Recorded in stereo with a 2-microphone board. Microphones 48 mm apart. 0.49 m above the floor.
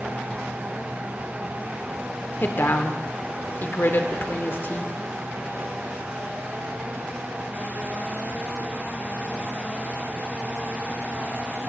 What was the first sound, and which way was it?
A woman speaking, 45° left (ahead or behind).